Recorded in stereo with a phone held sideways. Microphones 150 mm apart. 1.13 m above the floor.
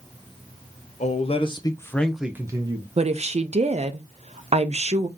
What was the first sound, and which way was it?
A man speaking, 50° left (ahead or behind).